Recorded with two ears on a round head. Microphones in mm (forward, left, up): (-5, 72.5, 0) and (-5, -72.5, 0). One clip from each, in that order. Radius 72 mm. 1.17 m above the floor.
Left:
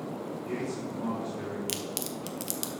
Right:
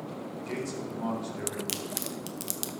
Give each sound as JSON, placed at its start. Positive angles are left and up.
{"t": 0.4, "sound": "a man speaking", "side_deg": -80, "distance_m": 4.0}
{"t": 1.7, "sound": "a crack", "side_deg": -5, "distance_m": 0.7}